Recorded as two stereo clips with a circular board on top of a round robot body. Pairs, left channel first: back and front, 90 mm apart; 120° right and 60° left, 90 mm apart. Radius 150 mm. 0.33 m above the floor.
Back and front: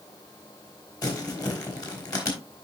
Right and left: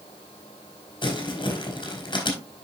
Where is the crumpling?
135° right, 3 m.